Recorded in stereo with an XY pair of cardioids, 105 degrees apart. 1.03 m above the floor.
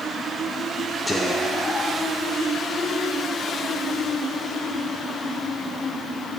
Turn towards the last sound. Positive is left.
turn(degrees=15)